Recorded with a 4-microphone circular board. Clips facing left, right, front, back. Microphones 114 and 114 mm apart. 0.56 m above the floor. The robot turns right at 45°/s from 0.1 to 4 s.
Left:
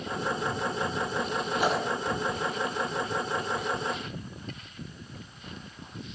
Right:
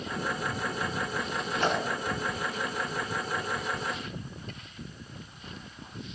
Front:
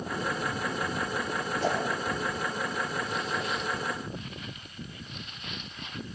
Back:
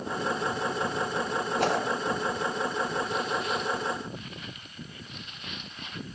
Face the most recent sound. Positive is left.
turn(degrees=-85)